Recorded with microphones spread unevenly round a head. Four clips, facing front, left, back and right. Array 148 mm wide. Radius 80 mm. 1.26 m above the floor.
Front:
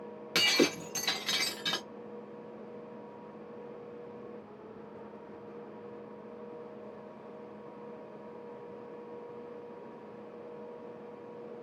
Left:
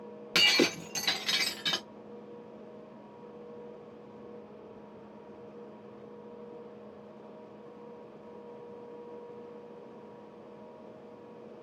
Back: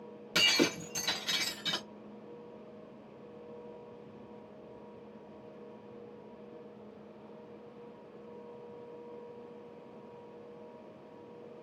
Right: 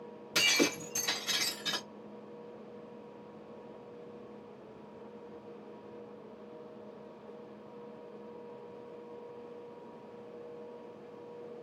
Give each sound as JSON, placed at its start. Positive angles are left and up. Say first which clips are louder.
{"t": 0.3, "sound": "breaking glass", "louder": "left 3 dB, front 2 dB", "azimuth_deg": 115, "distance_m": 0.8}